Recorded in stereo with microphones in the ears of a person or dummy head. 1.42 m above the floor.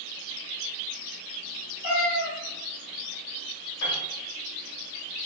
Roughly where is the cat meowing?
Centre.